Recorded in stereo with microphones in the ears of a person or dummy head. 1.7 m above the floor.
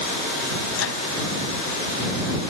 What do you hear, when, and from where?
0.8 s a microwave: 80° left